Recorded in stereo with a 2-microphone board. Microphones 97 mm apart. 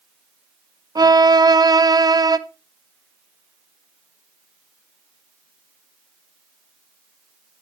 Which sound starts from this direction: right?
A violin, at 0.9 s.